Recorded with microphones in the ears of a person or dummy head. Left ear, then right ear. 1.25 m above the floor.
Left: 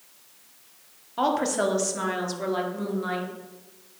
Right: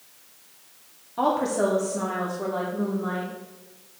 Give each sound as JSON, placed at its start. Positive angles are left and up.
{"t": 1.2, "sound": "a woman speaking", "side_deg": 20, "distance_m": 1.1}